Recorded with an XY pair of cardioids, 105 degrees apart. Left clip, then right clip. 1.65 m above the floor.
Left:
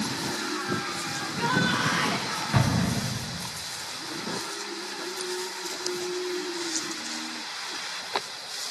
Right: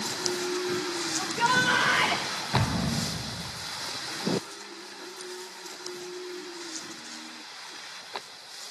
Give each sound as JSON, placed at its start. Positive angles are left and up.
{"t": 1.2, "sound": "a shout", "azimuth_deg": -60, "distance_m": 7.5}
{"t": 2.5, "sound": "an explosion", "azimuth_deg": 35, "distance_m": 5.0}